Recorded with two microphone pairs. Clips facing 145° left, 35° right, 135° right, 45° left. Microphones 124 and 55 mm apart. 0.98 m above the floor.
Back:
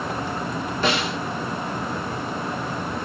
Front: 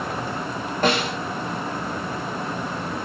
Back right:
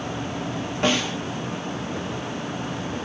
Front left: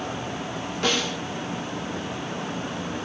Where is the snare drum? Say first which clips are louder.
Front 3 dB, back right 3 dB; 70° right, 1.2 m.